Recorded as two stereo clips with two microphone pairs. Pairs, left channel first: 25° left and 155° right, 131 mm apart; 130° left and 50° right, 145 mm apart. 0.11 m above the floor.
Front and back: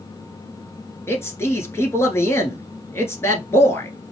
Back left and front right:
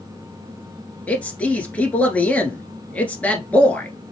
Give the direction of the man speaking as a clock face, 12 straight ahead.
10 o'clock.